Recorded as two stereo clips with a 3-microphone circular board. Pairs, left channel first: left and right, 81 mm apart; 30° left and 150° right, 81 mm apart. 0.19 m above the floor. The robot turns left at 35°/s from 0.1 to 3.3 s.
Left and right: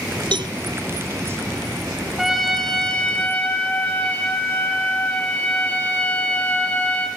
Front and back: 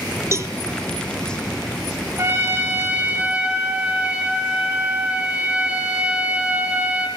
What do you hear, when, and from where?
0.3 s a cowbell: 95° right, 0.7 m; by 0.5 s 100° right, 0.7 m
2.2 s a trumpet: 175° right, 2 m; by 7.1 s 150° left, 2 m